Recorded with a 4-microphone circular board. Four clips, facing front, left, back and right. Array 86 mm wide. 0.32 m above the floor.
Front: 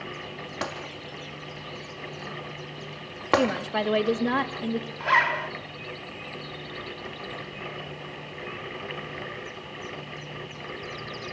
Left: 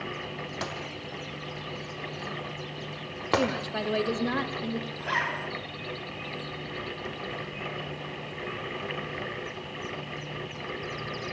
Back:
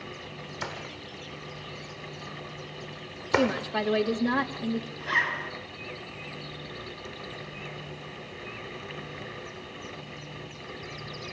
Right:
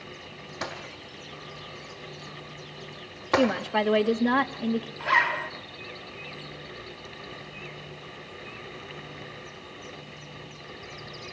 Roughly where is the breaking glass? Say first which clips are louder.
Left 1 dB, front 4 dB; ahead.